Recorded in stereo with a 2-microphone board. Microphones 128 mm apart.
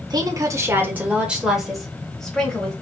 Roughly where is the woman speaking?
Right.